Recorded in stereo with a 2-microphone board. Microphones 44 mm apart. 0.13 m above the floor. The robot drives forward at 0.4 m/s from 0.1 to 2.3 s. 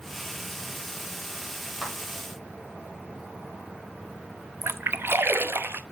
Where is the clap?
10° right (ahead or behind), 2.5 m.